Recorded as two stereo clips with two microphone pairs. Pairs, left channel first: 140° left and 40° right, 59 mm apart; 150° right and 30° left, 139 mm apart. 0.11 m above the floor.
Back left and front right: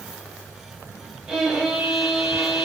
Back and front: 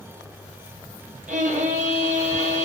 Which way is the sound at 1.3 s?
30° left.